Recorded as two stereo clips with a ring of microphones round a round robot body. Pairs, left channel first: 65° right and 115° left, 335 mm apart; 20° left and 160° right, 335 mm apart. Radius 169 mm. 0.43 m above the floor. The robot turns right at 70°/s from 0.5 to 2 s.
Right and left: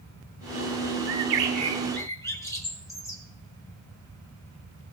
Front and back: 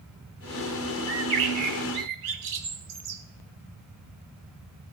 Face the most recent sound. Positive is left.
turn(degrees=-150)